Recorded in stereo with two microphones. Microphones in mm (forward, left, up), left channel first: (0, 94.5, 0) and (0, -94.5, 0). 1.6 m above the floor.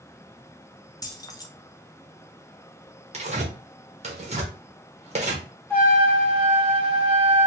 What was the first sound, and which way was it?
Keys jangling, 20° left (ahead or behind).